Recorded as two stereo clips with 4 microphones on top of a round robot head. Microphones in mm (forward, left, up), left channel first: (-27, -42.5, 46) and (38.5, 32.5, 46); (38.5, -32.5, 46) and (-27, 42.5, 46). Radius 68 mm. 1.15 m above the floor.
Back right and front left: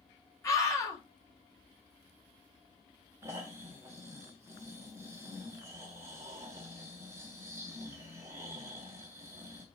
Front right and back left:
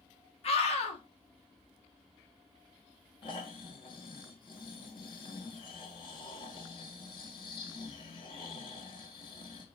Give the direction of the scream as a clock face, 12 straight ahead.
2 o'clock.